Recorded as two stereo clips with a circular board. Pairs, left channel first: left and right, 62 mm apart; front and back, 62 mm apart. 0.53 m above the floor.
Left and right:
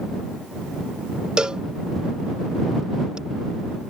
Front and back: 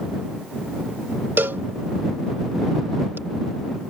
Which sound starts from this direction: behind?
A cowbell, at 1.4 s.